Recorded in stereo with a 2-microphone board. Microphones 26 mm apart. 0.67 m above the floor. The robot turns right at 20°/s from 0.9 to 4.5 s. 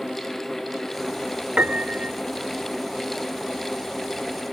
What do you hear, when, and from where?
1.6 s a piano: 85° right, 0.9 m; by 2.2 s 80° right, 0.9 m